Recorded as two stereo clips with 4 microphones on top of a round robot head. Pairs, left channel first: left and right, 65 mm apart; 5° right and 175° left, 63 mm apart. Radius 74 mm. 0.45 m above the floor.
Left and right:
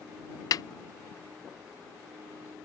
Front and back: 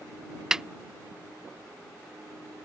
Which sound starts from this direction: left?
A snare drum, at 0.5 s.